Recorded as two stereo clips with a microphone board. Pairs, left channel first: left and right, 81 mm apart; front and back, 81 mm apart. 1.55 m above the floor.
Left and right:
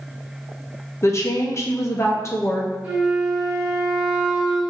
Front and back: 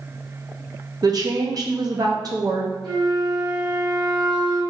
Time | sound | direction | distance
1.0 | a woman speaking | 145° left | 0.9 m
2.8 | a flute | 170° right | 1.7 m